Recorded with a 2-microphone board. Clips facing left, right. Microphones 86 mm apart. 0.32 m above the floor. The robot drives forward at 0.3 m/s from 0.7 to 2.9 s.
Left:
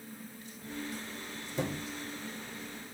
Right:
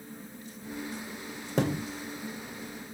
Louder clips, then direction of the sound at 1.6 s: Right 7 dB; 70° right (ahead or behind).